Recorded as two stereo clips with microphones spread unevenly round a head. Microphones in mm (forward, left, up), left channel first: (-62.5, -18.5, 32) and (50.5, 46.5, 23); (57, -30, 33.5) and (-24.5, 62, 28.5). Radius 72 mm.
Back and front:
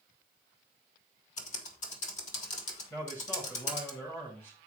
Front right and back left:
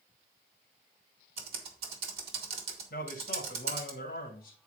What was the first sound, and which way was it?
Typing on a keyboard, 175° left.